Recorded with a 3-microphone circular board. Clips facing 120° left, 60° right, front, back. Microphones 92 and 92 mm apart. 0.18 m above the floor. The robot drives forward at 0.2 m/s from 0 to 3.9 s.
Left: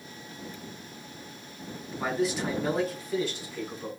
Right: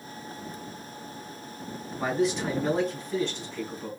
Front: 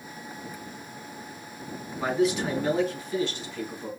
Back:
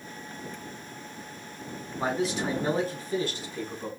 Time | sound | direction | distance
2.0 | a man speaking | 155° right | 1.3 m